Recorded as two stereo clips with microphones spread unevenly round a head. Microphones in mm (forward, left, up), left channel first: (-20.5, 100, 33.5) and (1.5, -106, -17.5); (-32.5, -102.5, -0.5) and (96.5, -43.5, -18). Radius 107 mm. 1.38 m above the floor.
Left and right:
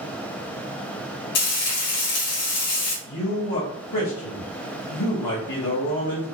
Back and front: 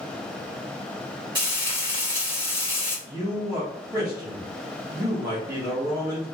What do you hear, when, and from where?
1.4 s frying: 95° left, 1.9 m
3.0 s a man speaking: 95° left, 1.5 m